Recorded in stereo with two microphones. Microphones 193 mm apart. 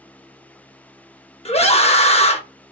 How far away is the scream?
About 0.9 m.